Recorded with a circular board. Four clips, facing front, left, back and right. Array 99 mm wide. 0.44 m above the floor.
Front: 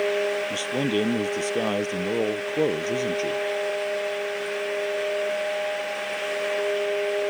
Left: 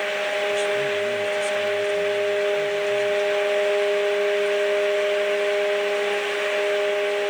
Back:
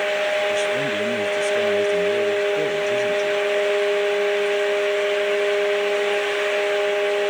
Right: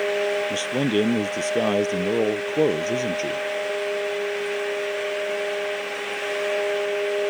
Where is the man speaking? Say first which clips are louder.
Even, back 3 dB; 70° right.